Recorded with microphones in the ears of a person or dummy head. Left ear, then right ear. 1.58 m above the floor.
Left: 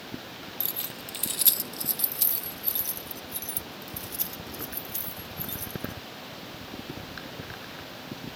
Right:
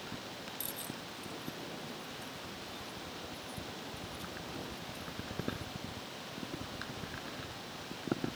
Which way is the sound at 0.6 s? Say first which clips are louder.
Left 5 dB; 10° left (ahead or behind).